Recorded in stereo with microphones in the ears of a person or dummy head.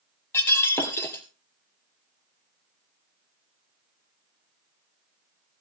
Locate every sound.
0.3 s breaking glass: 20° left (ahead or behind), 2 m